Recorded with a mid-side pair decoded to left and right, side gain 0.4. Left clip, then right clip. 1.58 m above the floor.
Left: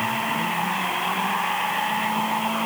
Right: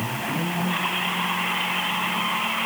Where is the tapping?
I don't hear tapping.